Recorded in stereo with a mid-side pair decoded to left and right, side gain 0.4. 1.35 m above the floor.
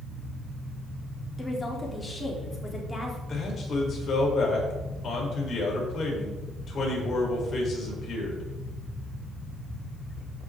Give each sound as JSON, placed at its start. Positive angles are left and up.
{"t": 1.4, "sound": "a woman speaking", "azimuth_deg": 25, "distance_m": 3.5}
{"t": 3.3, "sound": "a man speaking", "azimuth_deg": 55, "distance_m": 4.5}